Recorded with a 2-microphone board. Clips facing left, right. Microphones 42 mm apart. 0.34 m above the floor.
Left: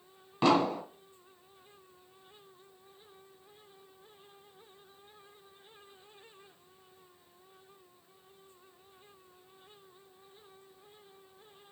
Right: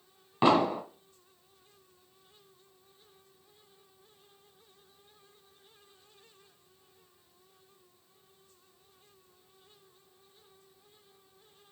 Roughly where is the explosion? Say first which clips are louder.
Right 2 dB; centre.